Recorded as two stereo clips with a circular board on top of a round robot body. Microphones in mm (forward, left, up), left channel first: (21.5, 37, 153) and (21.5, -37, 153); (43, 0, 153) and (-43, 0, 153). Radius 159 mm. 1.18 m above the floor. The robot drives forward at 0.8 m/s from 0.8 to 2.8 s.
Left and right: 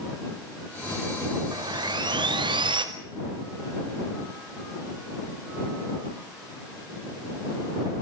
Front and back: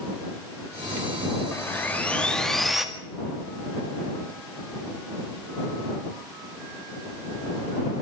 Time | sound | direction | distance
1.5 | sawing | 65° right | 2 m